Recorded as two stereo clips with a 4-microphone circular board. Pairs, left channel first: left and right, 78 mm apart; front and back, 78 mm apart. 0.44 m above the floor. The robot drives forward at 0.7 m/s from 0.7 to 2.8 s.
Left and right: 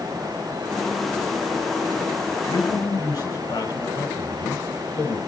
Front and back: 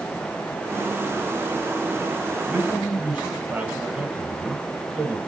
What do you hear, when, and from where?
2.5 s a man speaking: 105° left, 2 m; by 5.2 s 115° left, 2 m